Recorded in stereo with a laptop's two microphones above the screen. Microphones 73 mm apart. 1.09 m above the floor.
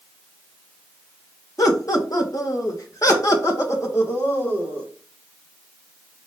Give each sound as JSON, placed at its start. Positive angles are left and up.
{"t": 1.6, "sound": "laughter", "side_deg": 50, "distance_m": 1.3}